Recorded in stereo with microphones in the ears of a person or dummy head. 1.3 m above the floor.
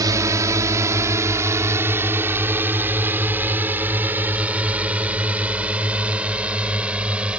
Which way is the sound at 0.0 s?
20° right (ahead or behind).